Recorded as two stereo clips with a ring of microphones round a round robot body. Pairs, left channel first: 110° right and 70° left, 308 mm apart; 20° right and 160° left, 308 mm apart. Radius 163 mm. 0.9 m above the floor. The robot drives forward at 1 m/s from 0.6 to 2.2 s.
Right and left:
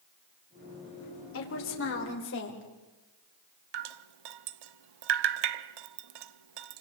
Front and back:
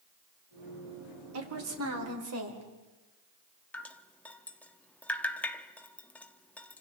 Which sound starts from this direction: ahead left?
Dripping, at 3.7 s.